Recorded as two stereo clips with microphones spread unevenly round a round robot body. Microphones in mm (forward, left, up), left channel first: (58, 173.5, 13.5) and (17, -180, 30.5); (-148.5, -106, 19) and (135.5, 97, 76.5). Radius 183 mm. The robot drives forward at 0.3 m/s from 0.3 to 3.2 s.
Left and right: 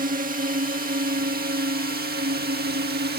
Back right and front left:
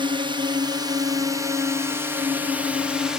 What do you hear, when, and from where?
0.0 s a drone: 45° right; by 3.2 s 70° right